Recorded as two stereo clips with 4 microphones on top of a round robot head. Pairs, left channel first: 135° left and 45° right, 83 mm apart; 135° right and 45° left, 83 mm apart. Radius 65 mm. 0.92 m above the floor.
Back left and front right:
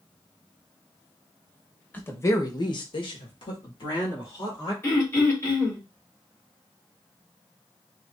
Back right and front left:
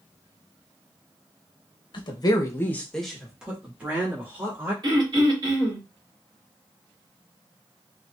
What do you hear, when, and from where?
1.9 s a woman speaking: 155° right, 1.3 m; by 4.7 s 105° left, 3 m
4.8 s throat clearing: 80° left, 3 m